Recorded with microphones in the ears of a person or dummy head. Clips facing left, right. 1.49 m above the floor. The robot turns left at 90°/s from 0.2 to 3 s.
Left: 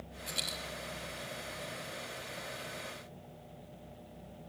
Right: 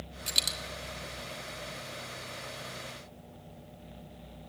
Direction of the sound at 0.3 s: 35° right (ahead or behind).